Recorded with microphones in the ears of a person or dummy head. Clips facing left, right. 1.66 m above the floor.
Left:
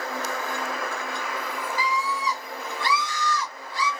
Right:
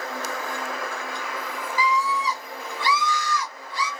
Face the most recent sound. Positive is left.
turn(degrees=-55)  # may be behind; listen again after turning